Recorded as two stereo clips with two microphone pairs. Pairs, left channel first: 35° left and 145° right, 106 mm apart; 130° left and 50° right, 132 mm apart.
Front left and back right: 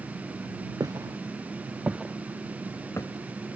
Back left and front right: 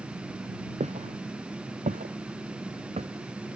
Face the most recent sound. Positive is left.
turn(degrees=-20)